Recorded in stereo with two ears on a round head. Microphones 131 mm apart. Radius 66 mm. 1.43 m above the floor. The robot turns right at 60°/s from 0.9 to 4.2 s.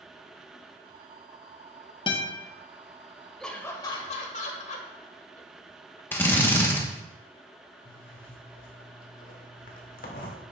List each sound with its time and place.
2.1 s a guitar: 35° left (ahead or behind), 0.9 m; by 2.4 s 30° left (ahead or behind), 0.9 m
3.4 s laughter: 5° left (ahead or behind), 1.3 m; by 6.0 s 50° left (ahead or behind), 1.3 m
6.1 s a drill: 15° left (ahead or behind), 1.0 m
7.8 s a zipper: 65° left (ahead or behind), 1.4 m